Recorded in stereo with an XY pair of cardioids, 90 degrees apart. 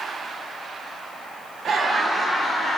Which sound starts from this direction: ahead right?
Laughter, at 1.6 s.